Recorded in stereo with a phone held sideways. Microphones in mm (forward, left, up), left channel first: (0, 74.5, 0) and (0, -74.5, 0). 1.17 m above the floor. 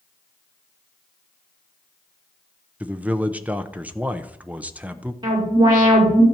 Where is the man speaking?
10° right (ahead or behind), 0.7 m.